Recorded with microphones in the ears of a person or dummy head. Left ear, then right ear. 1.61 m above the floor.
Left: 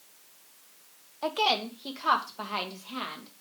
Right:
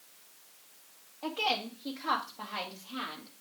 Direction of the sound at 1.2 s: 75° left (ahead or behind).